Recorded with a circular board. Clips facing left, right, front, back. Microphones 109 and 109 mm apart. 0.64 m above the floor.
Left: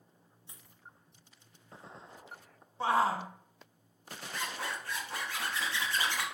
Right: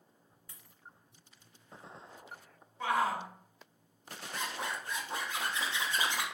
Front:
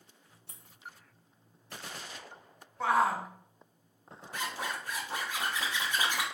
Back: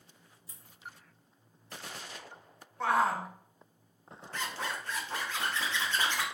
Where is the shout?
85° left, 0.6 m.